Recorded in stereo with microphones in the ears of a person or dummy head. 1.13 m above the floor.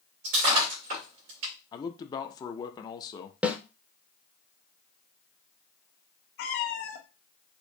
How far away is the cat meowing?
About 0.6 m.